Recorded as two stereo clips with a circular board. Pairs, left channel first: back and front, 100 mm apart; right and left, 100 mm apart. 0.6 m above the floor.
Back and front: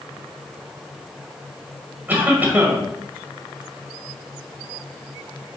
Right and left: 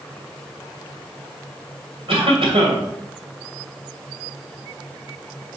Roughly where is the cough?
Left.